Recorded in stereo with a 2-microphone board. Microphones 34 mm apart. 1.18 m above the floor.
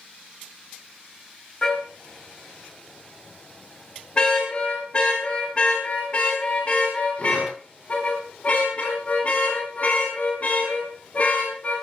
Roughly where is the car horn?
Left.